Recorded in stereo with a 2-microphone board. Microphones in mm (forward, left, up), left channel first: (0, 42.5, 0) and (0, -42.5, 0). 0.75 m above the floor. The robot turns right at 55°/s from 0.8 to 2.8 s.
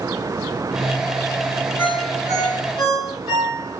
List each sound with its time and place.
1.8 s a ringtone: 20° left (ahead or behind), 4 m; by 3.8 s 75° left (ahead or behind), 4 m